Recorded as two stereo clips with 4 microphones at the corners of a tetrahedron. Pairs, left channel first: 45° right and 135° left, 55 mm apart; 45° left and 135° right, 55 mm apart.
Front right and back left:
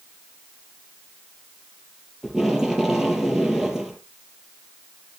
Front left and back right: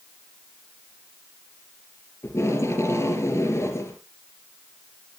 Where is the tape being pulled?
55° left, 3 m.